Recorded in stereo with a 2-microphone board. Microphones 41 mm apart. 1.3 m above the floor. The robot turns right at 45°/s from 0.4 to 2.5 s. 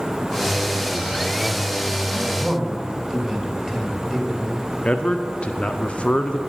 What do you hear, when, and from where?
2.1 s a man speaking: 20° right (ahead or behind), 1.4 m; by 4.7 s 5° right (ahead or behind), 1.4 m
4.8 s a man speaking: 25° left (ahead or behind), 0.6 m